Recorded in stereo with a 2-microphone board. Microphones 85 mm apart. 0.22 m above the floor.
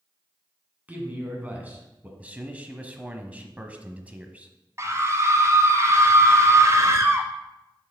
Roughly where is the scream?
Right.